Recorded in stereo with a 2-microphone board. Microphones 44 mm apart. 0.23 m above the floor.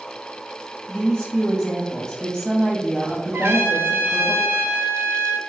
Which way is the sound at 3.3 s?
70° right (ahead or behind).